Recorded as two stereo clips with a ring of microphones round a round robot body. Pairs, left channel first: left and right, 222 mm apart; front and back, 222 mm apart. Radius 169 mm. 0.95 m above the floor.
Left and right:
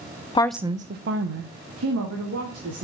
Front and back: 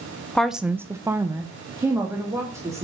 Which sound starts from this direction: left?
A woman speaking, at 0.3 s.